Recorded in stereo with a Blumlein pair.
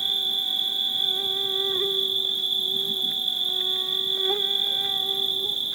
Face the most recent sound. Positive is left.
turn(degrees=-15)